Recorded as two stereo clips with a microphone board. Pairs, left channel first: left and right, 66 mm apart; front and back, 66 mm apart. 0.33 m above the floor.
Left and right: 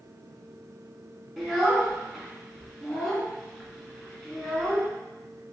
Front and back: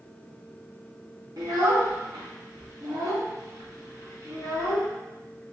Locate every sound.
1.4 s a child speaking: 175° right, 2 m